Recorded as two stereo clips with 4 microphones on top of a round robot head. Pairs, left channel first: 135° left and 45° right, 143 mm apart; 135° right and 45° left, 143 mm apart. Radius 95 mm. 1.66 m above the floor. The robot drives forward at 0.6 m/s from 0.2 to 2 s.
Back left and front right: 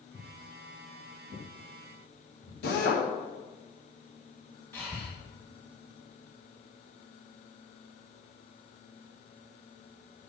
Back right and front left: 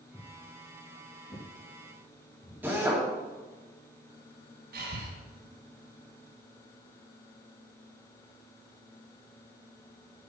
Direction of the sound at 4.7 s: 60° left.